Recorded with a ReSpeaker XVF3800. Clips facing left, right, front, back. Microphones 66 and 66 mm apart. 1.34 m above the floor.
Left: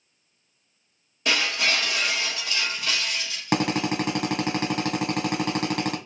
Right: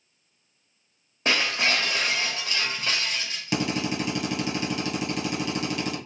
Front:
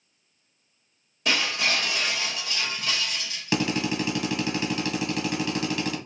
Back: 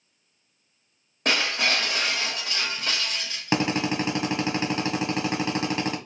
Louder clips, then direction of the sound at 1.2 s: Even, back 1 dB; 140° right.